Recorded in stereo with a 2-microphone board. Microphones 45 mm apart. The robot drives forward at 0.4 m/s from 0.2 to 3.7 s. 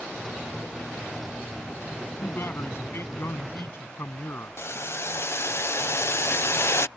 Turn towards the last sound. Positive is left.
turn(degrees=60)  # may be behind; listen again after turning